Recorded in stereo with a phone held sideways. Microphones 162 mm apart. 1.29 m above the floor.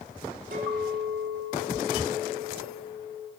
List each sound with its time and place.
0.5 s a clink: 60° right (ahead or behind), 1.2 m